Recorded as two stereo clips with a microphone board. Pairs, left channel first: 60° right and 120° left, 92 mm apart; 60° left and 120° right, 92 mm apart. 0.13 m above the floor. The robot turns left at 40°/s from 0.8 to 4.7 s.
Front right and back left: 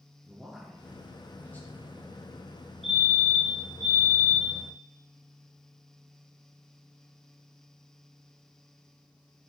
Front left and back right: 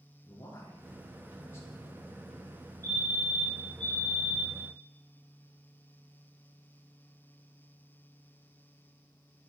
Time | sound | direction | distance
0.2 | a man speaking | 35° left | 2 m
2.8 | a fire alarm | 30° left | 2 m